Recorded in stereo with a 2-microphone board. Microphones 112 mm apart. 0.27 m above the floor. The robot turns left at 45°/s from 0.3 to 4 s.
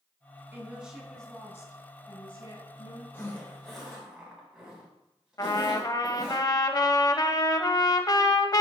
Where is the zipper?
25° left (ahead or behind), 2.5 m; by 6.4 s 5° right (ahead or behind), 2.5 m.